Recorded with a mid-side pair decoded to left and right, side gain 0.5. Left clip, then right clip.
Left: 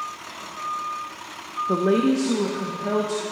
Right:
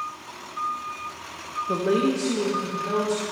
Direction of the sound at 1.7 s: 20° left.